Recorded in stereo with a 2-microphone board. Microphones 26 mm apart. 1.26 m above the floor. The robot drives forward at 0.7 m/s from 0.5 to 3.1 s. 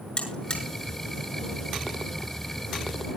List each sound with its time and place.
0.2 s a buzzer: 45° left (ahead or behind), 7 m